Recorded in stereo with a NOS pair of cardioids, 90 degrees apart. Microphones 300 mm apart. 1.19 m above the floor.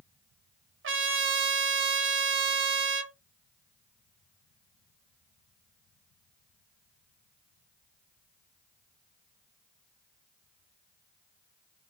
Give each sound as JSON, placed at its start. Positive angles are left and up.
{"t": 0.8, "sound": "a trumpet", "azimuth_deg": -45, "distance_m": 0.7}